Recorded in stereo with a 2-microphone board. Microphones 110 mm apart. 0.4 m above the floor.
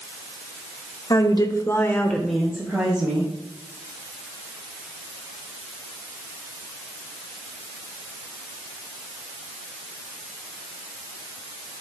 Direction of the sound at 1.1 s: 35° left (ahead or behind).